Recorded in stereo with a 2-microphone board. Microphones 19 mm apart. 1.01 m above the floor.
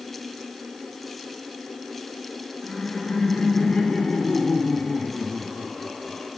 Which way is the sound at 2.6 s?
75° left (ahead or behind).